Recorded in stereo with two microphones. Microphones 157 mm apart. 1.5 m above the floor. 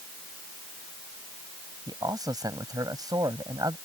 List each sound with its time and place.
1.9 s a man speaking: 25° right (ahead or behind)